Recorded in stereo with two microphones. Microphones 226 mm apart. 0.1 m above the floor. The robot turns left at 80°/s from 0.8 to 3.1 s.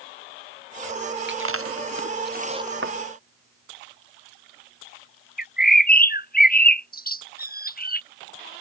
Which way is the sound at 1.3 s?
55° right (ahead or behind).